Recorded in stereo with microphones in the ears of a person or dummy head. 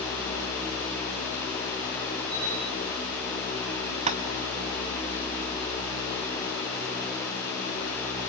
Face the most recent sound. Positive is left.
turn(degrees=-30)  # may be behind; listen again after turning